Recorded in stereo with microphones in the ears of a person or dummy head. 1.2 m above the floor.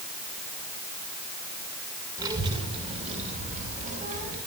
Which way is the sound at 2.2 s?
20° right (ahead or behind).